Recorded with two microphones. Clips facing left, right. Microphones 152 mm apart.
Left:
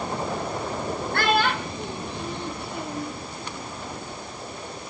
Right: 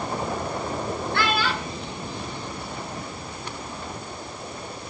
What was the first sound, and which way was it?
A child speaking, 50° left (ahead or behind).